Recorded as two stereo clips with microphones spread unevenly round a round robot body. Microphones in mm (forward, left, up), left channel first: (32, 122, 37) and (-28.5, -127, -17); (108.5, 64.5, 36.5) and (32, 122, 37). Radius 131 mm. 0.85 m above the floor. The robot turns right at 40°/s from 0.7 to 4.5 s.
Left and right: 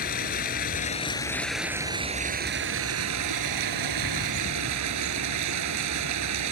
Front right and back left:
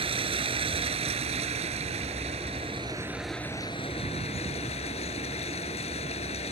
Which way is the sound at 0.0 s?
130° left.